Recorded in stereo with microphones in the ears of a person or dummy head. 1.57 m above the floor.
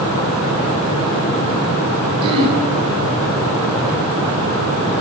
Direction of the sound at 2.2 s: 30° right (ahead or behind).